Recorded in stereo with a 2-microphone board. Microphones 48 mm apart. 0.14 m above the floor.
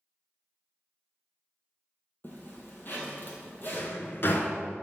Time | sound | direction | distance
2.2 | a zipper | 45° left (ahead or behind) | 1.4 m
3.7 | a drawer | 55° left (ahead or behind) | 0.5 m